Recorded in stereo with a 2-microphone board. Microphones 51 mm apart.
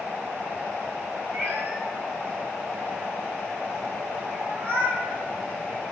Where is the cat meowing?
50° right (ahead or behind), 3.5 m; by 5.0 s 45° right (ahead or behind), 2.5 m.